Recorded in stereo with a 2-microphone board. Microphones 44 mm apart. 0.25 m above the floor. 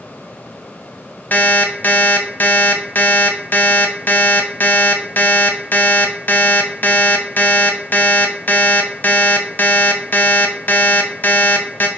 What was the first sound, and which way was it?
An alarm clock, 45° left (ahead or behind).